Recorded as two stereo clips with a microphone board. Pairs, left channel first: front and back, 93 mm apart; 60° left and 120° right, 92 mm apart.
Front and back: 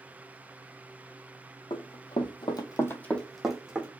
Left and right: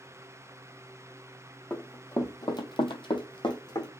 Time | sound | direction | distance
1.7 | running footsteps | 15° right | 1.2 m